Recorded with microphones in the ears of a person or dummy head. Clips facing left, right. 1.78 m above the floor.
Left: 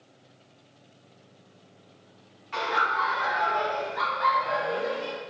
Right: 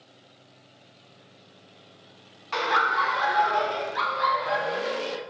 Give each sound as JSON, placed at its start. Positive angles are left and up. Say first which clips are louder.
{"t": 2.5, "sound": "laughter", "louder": "right 3 dB", "side_deg": -65, "distance_m": 1.2}